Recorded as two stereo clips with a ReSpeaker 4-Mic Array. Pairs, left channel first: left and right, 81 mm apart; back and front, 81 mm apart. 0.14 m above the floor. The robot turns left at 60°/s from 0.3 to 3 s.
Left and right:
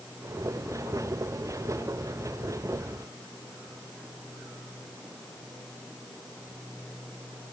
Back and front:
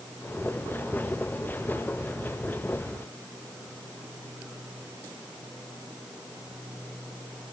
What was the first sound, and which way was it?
Only background noise.